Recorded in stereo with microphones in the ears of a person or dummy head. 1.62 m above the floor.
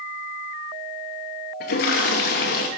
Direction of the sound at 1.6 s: 40° left (ahead or behind).